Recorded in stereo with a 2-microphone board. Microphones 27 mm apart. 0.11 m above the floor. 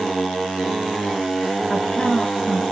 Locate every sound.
1.7 s a woman speaking: 50° left (ahead or behind), 2 m